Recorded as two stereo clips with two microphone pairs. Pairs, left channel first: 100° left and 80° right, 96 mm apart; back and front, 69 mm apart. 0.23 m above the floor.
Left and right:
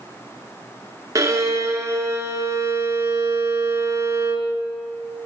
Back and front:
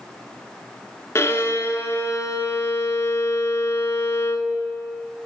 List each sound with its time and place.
1.1 s a violin: 135° right, 0.9 m